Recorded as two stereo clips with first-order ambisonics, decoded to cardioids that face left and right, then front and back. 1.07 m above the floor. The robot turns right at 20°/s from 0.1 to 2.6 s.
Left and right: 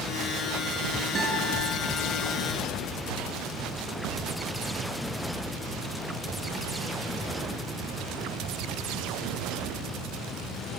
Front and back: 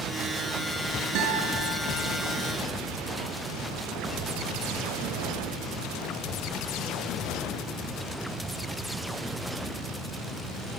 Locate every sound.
1.1 s a guitar: 155° right, 6.5 m; by 1.6 s 145° right, 6.5 m